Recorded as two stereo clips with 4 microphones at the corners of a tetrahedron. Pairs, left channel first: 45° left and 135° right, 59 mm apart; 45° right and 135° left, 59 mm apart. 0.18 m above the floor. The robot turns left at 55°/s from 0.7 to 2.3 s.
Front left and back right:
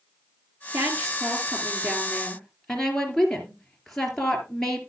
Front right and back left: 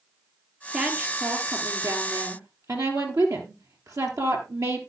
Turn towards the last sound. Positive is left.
turn(degrees=130)